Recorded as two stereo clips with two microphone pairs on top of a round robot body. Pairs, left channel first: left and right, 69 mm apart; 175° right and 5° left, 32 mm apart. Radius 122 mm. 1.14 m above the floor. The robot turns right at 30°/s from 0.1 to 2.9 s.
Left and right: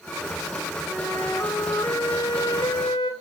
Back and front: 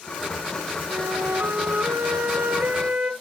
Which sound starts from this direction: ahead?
A flute, at 0.9 s.